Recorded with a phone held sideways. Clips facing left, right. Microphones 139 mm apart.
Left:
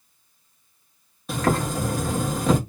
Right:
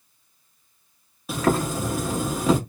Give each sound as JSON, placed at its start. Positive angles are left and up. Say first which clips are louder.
{"t": 1.3, "sound": "boiling", "louder": "right 1 dB", "side_deg": -5, "distance_m": 1.1}